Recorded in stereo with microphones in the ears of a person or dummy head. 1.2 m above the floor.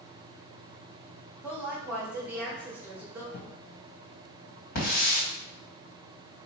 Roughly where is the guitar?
No guitar in this recording.